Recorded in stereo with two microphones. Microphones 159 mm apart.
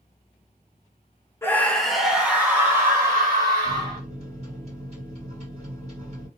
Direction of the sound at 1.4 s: 15° left (ahead or behind).